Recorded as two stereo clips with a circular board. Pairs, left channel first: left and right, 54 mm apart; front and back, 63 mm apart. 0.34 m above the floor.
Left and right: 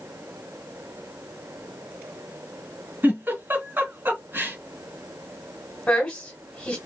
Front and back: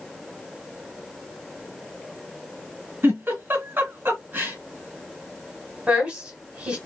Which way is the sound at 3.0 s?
130° right.